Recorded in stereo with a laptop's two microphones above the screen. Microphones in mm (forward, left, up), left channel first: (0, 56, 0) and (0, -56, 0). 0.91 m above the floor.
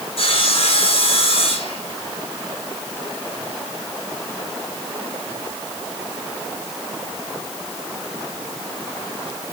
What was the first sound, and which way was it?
Sawing, 60° left (ahead or behind).